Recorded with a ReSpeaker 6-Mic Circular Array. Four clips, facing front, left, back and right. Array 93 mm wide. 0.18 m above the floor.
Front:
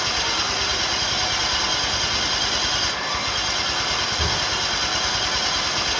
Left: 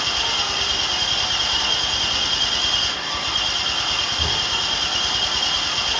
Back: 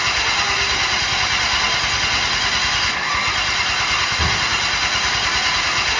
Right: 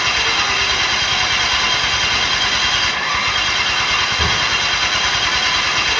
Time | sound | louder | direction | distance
0.0 | an engine running | right 7 dB, back 4 dB | 125° right | 0.9 m